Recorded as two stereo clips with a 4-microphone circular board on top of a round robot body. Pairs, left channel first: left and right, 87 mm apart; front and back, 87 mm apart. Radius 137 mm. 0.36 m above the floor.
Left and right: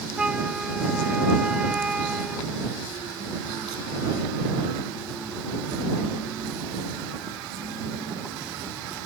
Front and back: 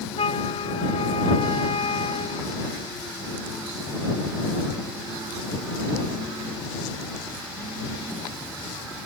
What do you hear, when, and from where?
0.2 s a flute: 10° right